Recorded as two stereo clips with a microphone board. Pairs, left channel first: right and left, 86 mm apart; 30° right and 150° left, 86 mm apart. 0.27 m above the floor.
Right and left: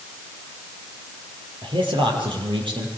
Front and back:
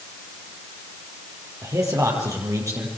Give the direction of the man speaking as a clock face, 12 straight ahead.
9 o'clock.